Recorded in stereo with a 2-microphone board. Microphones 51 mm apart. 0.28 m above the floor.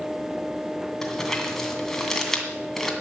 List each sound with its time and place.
1.0 s crumpling: 5° left (ahead or behind), 2.5 m